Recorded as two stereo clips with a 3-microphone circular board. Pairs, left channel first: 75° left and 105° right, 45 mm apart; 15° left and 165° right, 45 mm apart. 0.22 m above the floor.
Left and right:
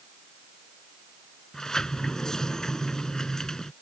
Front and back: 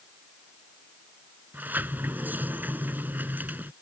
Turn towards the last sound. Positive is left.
turn(degrees=150)